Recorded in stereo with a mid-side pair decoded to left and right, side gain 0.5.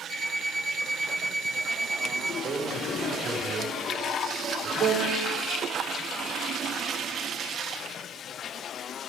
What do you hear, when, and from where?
0.1 s an alarm clock: 60° left, 3.5 m
2.4 s a man speaking: 45° right, 6 m
4.8 s a piano: 40° right, 1.3 m